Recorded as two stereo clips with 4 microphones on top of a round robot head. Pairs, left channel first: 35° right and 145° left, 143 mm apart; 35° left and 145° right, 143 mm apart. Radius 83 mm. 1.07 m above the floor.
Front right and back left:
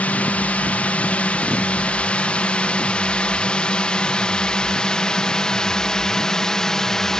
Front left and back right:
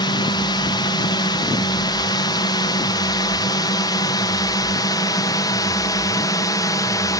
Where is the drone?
35° left; by 7.2 s 50° left.